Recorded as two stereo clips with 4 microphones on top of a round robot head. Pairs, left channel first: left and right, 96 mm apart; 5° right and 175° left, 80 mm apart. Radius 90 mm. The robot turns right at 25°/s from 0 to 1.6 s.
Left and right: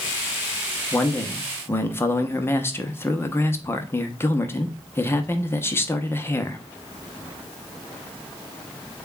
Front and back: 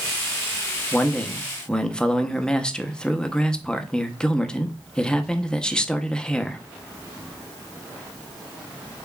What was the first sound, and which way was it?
A man speaking, 45° left.